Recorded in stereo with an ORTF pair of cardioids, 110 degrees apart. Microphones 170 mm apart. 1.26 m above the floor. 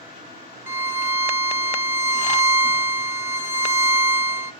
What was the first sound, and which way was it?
A violin, 15° right.